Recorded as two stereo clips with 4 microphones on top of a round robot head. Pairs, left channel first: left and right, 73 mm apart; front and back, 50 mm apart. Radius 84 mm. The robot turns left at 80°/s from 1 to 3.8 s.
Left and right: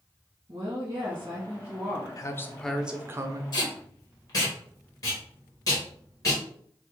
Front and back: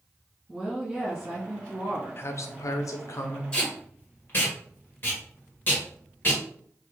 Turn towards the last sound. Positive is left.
turn(degrees=50)